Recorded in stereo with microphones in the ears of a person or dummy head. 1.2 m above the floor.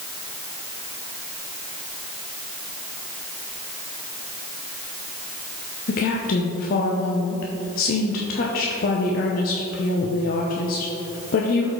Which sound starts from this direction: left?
A woman speaking, at 5.9 s.